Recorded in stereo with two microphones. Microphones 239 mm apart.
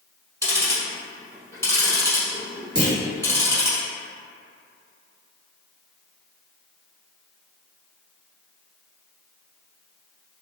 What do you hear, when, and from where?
0.4 s ticking: 10° left (ahead or behind), 1.0 m
2.8 s a clunk: 45° left (ahead or behind), 1.3 m